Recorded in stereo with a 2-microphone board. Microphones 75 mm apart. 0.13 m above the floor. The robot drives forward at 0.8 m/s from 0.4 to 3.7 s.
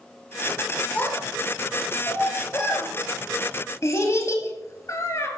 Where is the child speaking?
25° left (ahead or behind), 3.5 m; by 5.3 s 50° left (ahead or behind), 1.8 m.